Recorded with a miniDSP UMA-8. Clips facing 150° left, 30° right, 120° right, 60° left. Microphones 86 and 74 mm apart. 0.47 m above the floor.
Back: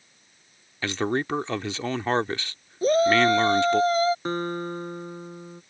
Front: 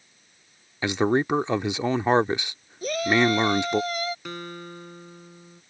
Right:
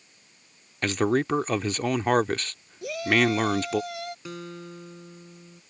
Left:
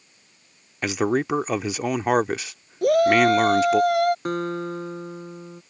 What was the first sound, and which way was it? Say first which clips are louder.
A man speaking: front 4 dB, left 1 dB; straight ahead.